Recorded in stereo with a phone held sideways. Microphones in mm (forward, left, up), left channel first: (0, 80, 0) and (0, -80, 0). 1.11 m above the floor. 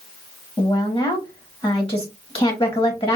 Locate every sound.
0.6 s a woman speaking: 35° left (ahead or behind), 1.1 m